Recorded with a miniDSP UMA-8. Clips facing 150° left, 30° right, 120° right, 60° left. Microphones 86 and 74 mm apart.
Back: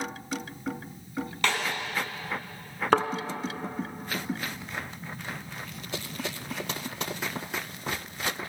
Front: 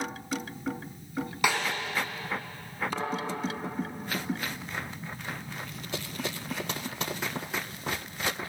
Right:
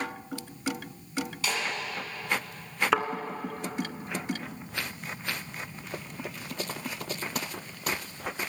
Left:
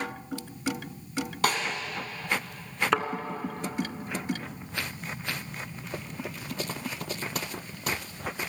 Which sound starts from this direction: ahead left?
A snare drum, at 1.4 s.